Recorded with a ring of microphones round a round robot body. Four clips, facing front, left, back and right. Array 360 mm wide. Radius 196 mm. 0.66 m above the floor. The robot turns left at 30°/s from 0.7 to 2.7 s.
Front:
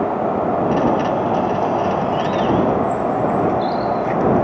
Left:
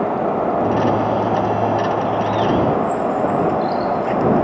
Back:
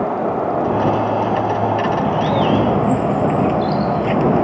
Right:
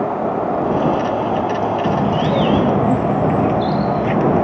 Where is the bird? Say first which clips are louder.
Right 1 dB, back 1 dB; 105° right; by 4.4 s 130° right.